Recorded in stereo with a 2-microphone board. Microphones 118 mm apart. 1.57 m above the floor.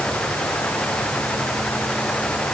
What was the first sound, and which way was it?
Only background noise.